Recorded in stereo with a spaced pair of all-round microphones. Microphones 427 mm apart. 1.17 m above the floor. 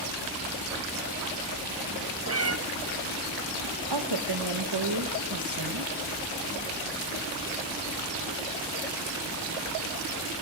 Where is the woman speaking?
65° right (ahead or behind), 1.3 m.